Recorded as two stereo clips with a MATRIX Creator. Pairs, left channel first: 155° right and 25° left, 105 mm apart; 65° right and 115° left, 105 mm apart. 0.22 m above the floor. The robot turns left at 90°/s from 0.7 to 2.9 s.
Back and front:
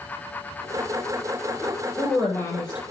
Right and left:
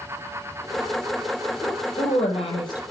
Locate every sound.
1.6 s a woman speaking: 20° right, 6.5 m; by 2.8 s 125° right, 6.5 m